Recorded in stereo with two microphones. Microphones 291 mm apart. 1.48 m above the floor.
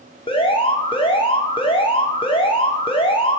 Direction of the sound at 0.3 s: 20° left (ahead or behind).